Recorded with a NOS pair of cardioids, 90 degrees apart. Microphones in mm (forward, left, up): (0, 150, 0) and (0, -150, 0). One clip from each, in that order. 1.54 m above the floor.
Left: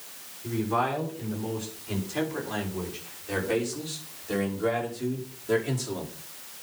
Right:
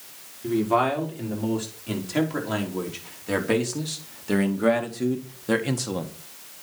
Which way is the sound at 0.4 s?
70° right.